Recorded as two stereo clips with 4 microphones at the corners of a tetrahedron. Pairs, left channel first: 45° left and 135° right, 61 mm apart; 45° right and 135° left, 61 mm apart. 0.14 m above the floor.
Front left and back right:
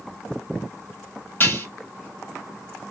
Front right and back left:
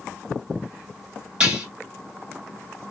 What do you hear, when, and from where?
1.4 s dishes clattering: 65° left, 1.3 m